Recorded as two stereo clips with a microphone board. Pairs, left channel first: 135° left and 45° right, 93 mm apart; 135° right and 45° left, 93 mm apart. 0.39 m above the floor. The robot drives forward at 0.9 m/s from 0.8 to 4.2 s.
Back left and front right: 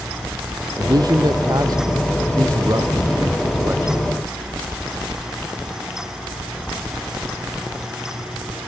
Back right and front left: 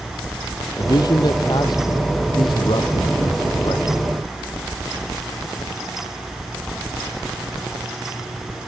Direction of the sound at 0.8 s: 90° right.